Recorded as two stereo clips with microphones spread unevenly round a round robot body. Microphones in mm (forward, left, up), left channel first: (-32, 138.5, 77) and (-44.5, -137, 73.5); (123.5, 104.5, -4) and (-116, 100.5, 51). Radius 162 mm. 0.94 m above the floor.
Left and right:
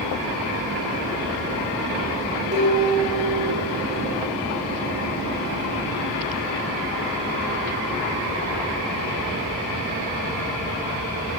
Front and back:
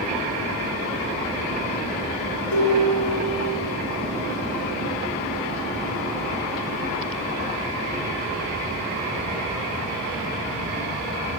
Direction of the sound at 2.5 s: 25° right.